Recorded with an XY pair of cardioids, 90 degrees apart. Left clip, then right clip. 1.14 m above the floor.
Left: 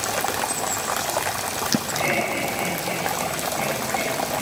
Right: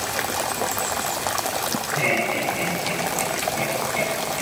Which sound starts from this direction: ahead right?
Laughter, at 1.9 s.